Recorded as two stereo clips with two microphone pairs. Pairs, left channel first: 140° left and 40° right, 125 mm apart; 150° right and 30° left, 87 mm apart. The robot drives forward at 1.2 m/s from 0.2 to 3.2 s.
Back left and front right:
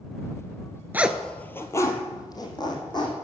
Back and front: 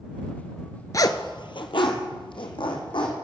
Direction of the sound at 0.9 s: 115° right.